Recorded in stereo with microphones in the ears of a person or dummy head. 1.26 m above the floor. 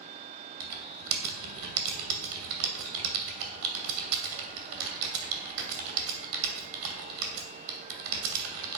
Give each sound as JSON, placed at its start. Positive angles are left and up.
{"t": 0.6, "sound": "typing on a keyboard", "side_deg": -70, "distance_m": 2.5}